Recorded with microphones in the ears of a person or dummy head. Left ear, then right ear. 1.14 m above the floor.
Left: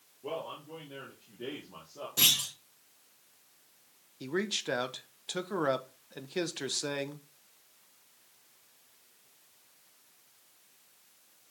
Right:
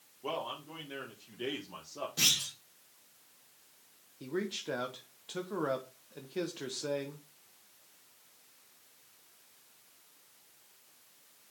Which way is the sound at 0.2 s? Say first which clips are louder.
Right 1 dB; 40° right (ahead or behind).